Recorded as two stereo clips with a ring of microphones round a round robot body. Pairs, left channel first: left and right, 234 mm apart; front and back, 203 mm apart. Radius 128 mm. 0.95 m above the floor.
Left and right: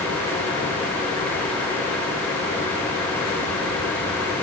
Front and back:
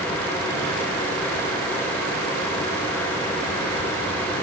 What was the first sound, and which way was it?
Only background noise.